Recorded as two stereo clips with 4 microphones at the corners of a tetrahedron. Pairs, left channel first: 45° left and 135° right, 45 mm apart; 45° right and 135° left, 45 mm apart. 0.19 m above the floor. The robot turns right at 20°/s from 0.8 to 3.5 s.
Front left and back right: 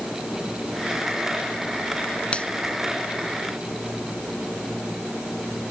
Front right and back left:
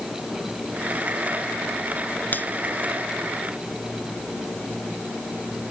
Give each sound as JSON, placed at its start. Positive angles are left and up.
{"t": 2.3, "sound": "a finger snap", "azimuth_deg": -15}